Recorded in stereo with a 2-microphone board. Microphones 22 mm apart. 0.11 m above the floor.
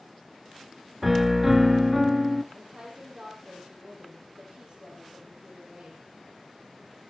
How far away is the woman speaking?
About 5.5 m.